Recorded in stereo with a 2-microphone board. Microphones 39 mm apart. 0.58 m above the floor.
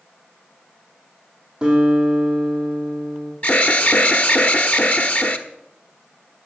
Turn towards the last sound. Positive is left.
turn(degrees=45)  # may be behind; listen again after turning